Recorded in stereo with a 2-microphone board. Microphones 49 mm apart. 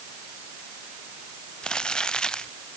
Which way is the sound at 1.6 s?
20° left (ahead or behind).